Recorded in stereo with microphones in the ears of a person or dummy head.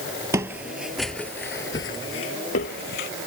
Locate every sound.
0.3 s footsteps: 20° right (ahead or behind); by 3.1 s 55° left (ahead or behind)